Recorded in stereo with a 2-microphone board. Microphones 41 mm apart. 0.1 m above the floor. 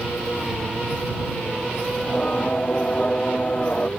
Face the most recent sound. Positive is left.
turn(degrees=30)  # may be behind; listen again after turning